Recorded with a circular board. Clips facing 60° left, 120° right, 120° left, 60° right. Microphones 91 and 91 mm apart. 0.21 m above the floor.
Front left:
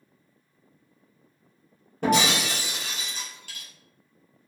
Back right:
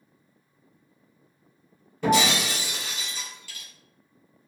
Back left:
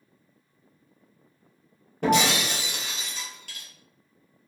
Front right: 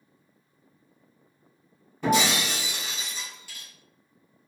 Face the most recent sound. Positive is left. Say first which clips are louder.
# back right 1 dB, back left 1 dB
turn(degrees=95)